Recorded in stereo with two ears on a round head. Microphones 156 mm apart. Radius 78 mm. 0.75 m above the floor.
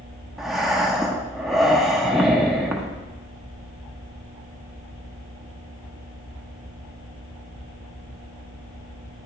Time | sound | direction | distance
0.4 | breathing | centre (ahead or behind) | 0.7 m